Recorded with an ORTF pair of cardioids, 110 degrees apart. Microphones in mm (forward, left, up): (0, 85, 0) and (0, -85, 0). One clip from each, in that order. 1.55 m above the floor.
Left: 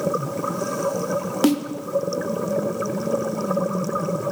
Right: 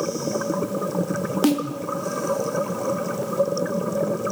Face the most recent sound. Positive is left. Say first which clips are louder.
# left 1 dB
turn(degrees=5)